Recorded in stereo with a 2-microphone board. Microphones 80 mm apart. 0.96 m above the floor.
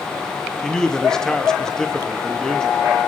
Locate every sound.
0.6 s a man speaking: 5° left (ahead or behind), 1.6 m